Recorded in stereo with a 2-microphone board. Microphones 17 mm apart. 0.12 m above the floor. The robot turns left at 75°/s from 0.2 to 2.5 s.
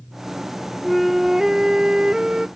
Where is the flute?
5° left; by 2.5 s 120° right.